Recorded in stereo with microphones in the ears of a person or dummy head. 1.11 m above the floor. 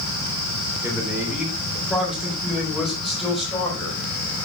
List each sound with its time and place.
0.8 s a man speaking: 5° right (ahead or behind), 3.5 m; by 4.0 s 5° left (ahead or behind), 5.5 m